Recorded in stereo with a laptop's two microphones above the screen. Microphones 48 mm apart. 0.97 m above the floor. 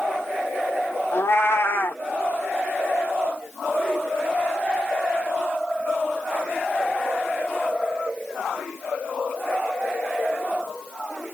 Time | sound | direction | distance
1.1 | a cat meowing | 55° left (ahead or behind) | 0.8 m